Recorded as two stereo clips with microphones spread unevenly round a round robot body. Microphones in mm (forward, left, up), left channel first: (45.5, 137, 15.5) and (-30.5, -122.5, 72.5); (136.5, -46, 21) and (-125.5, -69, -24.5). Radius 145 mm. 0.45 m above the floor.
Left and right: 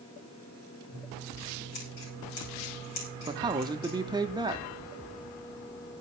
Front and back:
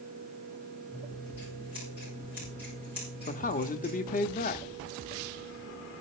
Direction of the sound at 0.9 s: 100° left.